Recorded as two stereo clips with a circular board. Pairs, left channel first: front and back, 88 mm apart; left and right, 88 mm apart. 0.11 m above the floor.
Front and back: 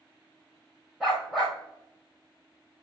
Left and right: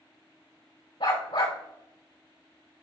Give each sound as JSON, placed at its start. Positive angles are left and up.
{"t": 1.0, "sound": "a dog barking", "azimuth_deg": 95, "distance_m": 4.5}